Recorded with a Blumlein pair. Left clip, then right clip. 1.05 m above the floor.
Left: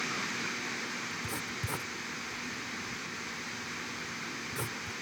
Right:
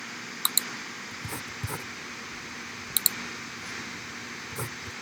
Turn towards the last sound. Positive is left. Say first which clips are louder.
# even
turn(degrees=-5)